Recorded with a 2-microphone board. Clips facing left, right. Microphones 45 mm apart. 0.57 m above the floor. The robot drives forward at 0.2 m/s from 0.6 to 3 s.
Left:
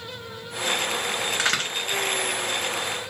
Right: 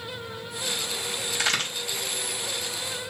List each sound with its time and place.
1.3 s a crack: 60° left (ahead or behind), 2.5 m